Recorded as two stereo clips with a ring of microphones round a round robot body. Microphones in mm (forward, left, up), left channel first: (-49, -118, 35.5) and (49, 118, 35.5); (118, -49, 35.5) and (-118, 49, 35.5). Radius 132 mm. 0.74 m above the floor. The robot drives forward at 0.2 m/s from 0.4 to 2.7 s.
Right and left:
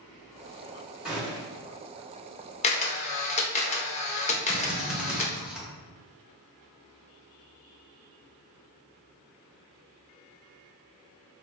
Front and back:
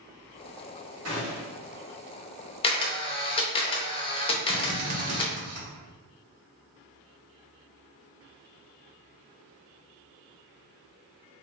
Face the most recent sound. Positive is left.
turn(degrees=150)